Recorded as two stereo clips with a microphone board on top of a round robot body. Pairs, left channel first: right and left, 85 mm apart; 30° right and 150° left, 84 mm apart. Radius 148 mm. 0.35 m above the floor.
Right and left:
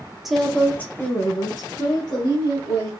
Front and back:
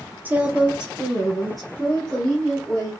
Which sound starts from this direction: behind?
A woman speaking, at 0.2 s.